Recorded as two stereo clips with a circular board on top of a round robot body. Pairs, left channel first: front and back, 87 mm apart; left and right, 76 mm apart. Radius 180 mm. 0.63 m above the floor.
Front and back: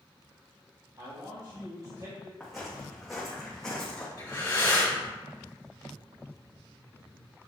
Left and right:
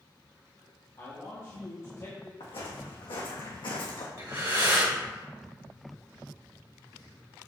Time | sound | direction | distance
1.0 | a man speaking | 140° left | 1.8 m
2.4 | footsteps | 95° left | 3 m
4.2 | breathing | 55° right | 2.5 m